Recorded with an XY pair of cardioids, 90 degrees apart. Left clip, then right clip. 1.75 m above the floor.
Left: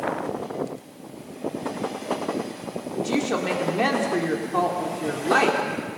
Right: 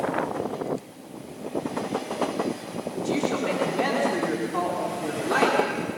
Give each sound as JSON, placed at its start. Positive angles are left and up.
{"t": 3.0, "sound": "a woman speaking", "azimuth_deg": 40, "distance_m": 4.5}